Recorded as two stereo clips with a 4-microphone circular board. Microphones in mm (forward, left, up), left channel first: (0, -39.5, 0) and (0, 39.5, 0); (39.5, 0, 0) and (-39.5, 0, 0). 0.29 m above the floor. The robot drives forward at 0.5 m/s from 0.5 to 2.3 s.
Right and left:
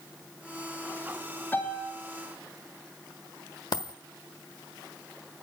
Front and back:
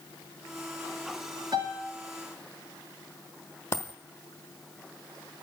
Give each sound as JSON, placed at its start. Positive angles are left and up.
{"t": 1.5, "sound": "a piano", "azimuth_deg": -155, "distance_m": 10.0}
{"t": 3.7, "sound": "a dropped coin", "azimuth_deg": -55, "distance_m": 1.1}